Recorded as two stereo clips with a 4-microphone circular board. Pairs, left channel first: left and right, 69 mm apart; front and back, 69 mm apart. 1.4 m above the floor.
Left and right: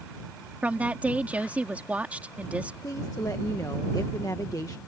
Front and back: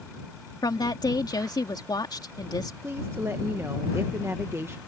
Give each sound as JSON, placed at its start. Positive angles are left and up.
{"t": 0.6, "sound": "a woman speaking", "azimuth_deg": -20}
{"t": 2.8, "sound": "a woman speaking", "azimuth_deg": 130}